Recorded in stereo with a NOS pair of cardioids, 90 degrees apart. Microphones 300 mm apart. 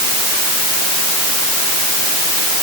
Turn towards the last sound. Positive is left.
No sound to turn to.